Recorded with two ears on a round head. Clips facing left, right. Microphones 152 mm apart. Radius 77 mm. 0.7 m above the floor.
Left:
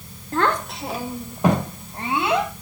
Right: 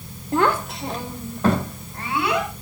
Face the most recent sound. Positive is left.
turn(degrees=20)  # may be behind; listen again after turning